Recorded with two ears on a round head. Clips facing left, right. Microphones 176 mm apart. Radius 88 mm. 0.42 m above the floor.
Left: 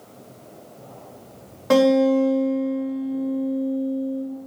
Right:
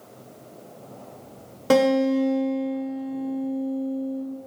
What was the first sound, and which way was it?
A guitar, 40° right (ahead or behind).